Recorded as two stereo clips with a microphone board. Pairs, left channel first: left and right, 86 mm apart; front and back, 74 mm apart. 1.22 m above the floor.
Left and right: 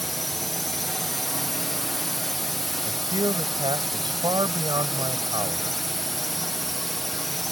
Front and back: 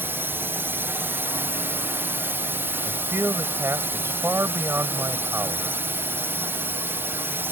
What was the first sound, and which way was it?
A drone, 175° left.